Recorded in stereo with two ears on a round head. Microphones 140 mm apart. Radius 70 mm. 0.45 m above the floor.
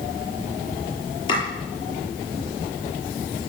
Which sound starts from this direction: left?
Chopping, at 1.3 s.